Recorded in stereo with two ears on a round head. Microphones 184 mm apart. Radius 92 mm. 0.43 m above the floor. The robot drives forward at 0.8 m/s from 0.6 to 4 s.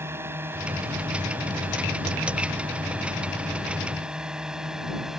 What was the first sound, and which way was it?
A drone, 10° right (ahead or behind).